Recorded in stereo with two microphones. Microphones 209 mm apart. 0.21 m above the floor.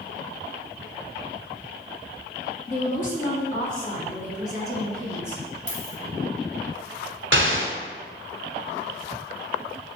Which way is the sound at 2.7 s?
35° left (ahead or behind).